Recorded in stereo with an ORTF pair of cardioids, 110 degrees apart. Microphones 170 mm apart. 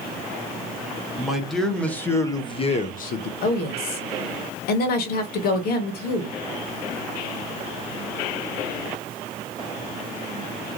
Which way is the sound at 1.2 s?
5° right.